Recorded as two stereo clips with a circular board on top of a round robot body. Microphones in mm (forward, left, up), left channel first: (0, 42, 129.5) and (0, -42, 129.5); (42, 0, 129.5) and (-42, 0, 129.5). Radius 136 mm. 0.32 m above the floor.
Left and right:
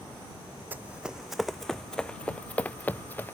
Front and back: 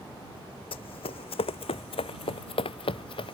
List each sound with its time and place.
0.7 s running footsteps: 20° right; by 3.3 s 20° left